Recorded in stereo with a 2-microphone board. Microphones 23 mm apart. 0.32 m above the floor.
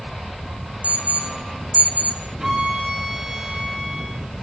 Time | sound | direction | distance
0.8 | an alarm | 65° right (ahead or behind) | 5.5 m
2.4 | a violin | 25° right (ahead or behind) | 6.5 m